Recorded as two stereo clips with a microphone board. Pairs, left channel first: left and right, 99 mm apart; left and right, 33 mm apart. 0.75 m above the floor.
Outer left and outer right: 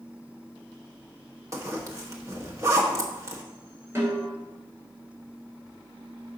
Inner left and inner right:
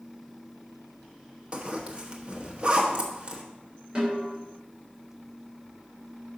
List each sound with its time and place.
1.5 s a zipper: 30° right (ahead or behind), 1.2 m
4.0 s a snare drum: 30° right (ahead or behind), 3 m